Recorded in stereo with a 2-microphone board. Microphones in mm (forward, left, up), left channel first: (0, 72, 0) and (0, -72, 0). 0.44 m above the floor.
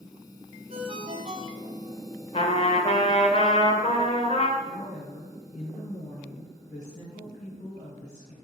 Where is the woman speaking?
55° left (ahead or behind), 4 m.